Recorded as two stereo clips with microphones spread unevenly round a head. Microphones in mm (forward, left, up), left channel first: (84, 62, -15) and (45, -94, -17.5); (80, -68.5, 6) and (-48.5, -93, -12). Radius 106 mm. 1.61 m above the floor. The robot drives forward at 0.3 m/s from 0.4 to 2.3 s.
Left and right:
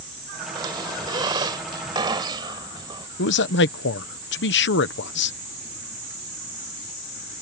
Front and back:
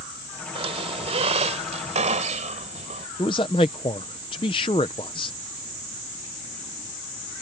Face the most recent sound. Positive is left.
turn(degrees=80)